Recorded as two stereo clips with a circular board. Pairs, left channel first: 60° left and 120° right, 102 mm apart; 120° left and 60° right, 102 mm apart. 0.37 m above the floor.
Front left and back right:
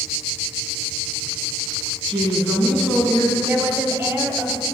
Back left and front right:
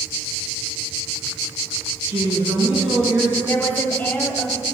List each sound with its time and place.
2.1 s a woman speaking: 30° right, 3 m
3.5 s a woman speaking: straight behind, 1.4 m